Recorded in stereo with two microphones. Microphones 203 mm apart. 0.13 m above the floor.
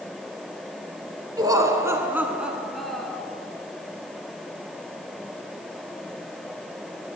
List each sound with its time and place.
1.4 s laughter: 20° right (ahead or behind), 1.2 m; by 3.2 s 5° left (ahead or behind), 1.2 m